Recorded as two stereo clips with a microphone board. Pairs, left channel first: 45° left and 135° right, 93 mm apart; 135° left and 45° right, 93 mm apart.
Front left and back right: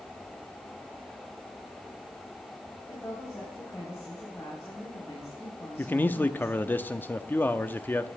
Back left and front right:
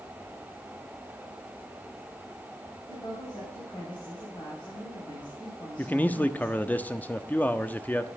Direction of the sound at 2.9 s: 110° left.